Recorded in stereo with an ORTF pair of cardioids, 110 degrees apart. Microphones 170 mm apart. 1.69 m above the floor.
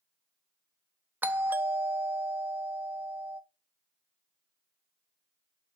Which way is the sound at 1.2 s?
10° right.